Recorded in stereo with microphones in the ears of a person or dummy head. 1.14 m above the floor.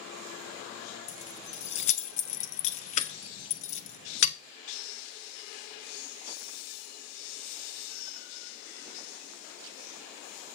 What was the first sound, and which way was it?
Keys jangling, 35° left (ahead or behind).